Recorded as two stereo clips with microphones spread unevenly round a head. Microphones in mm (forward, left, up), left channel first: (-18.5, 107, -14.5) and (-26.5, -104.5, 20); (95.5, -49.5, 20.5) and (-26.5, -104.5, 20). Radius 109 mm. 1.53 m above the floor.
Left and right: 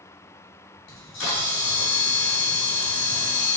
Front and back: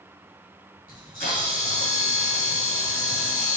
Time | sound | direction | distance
0.9 | a camera shutter | 95° left | 3 m